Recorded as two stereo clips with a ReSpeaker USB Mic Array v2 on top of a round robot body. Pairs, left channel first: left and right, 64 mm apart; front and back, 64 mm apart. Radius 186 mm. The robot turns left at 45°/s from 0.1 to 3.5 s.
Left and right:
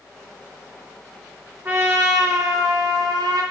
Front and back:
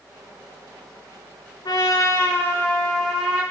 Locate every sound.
1.6 s a trumpet: 25° right, 0.8 m; by 3.4 s 105° right, 0.8 m